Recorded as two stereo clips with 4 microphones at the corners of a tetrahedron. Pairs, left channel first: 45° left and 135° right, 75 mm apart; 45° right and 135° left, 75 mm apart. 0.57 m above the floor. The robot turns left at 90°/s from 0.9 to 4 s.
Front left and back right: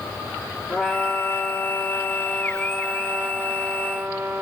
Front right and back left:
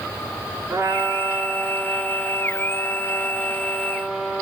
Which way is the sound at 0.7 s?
115° left.